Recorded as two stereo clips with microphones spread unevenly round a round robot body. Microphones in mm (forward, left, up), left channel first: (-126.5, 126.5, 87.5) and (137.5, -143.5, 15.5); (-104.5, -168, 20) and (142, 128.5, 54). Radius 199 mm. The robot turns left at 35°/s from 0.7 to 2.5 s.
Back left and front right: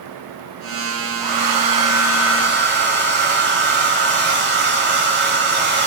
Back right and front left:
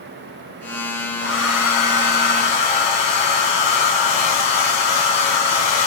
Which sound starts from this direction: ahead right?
A hair dryer, at 1.2 s.